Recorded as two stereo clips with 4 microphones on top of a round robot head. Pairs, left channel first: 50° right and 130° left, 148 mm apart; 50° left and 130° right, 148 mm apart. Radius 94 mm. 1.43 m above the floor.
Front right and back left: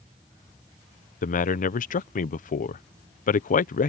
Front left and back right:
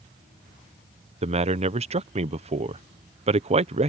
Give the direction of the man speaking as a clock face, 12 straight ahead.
3 o'clock.